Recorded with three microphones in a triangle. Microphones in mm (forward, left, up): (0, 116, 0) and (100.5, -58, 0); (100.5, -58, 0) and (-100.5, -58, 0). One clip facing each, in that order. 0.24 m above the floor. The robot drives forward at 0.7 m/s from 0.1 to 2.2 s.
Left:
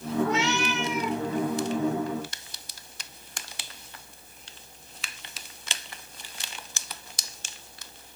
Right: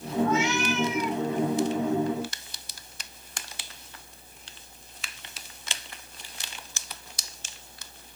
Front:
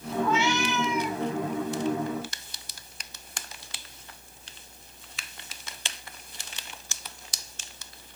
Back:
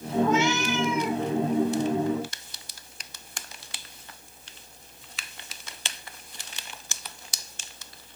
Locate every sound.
0.2 s a cat meowing: 135° left, 2.5 m; by 1.2 s 145° left, 3 m